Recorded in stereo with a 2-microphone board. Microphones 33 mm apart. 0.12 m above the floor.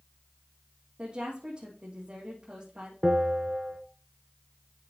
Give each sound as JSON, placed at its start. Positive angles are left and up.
{"t": 1.0, "sound": "a woman speaking", "side_deg": -35, "distance_m": 4.0}
{"t": 3.0, "sound": "a bell", "side_deg": -30, "distance_m": 1.2}